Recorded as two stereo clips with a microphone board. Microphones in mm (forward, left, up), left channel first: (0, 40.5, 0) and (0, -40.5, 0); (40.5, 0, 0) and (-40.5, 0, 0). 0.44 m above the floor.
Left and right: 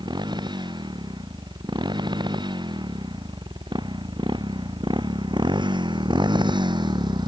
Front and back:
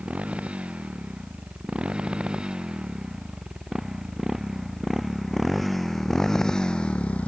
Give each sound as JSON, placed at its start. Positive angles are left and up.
{"t": 0.0, "sound": "a motorcycle", "azimuth_deg": -105}